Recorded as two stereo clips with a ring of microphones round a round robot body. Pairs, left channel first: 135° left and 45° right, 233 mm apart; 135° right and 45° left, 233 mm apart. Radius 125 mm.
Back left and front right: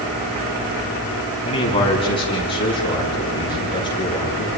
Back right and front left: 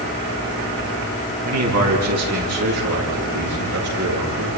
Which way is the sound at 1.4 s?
65° left.